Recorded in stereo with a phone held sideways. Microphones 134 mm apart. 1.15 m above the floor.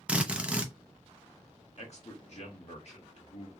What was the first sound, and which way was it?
A drill, 10° right (ahead or behind).